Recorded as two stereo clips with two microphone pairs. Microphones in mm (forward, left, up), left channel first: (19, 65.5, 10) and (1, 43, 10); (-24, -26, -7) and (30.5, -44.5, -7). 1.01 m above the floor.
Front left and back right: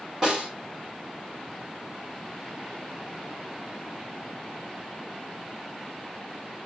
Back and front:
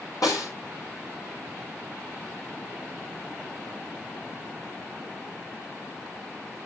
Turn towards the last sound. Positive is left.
turn(degrees=160)